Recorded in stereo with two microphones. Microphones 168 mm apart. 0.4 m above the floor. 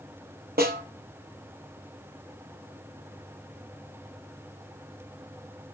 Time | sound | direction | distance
0.6 | a snare drum | 70° right (ahead or behind) | 3 m